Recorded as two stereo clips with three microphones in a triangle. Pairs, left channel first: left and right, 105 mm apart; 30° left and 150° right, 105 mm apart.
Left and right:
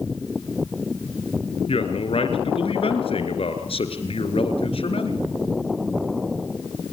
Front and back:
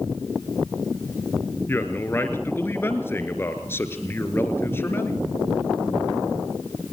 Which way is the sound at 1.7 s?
95° left.